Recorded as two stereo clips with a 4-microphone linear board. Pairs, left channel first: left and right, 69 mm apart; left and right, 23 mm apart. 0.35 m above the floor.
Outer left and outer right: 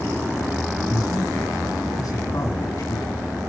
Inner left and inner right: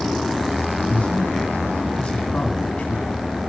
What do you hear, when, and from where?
0.9 s a man speaking: 65° left (ahead or behind), 3 m